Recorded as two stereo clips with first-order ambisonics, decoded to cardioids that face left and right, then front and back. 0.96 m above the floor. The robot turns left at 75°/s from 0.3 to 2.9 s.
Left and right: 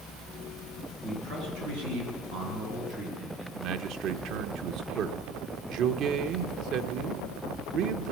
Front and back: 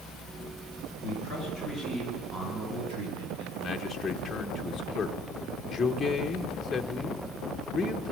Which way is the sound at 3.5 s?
80° right.